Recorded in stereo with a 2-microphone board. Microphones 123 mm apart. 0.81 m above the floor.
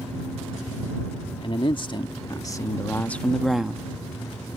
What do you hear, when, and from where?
1.4 s a man speaking: 45° left (ahead or behind); by 3.9 s 10° right (ahead or behind)